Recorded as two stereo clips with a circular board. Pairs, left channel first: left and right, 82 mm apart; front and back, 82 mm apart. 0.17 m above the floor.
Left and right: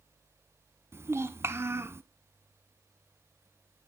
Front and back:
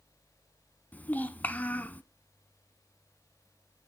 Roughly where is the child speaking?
Ahead right.